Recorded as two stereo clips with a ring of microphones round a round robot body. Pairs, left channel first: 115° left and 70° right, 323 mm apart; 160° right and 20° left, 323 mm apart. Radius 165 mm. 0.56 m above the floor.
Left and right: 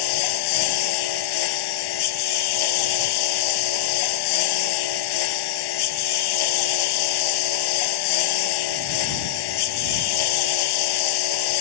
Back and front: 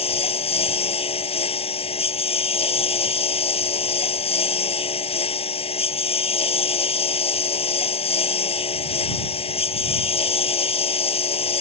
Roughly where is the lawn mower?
Behind left.